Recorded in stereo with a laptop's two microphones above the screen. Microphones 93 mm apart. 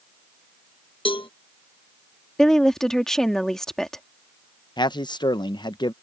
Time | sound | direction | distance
1.1 | a cowbell | 65° left (ahead or behind) | ?
2.4 | a woman speaking | 5° left (ahead or behind) | ?
4.8 | a man speaking | 50° left (ahead or behind) | ?